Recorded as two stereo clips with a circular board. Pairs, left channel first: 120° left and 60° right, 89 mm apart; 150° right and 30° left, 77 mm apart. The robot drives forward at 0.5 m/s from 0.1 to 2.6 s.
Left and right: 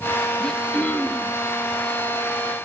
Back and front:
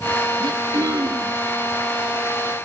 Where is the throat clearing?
40° left, 1.2 m; by 1.4 s 65° left, 1.0 m.